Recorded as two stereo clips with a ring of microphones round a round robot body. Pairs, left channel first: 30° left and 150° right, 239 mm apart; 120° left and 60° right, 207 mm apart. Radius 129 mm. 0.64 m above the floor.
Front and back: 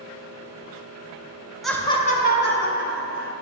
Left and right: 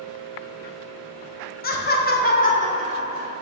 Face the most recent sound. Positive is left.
turn(degrees=60)